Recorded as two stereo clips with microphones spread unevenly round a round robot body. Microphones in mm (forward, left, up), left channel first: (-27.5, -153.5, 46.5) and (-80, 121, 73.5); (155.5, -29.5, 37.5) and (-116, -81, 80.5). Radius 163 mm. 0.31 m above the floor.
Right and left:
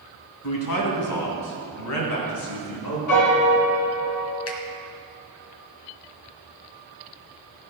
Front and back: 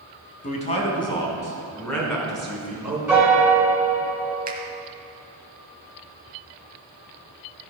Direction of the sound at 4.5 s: 105° right.